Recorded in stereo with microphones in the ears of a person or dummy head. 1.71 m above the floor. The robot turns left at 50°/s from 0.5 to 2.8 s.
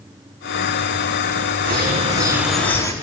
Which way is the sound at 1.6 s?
135° right.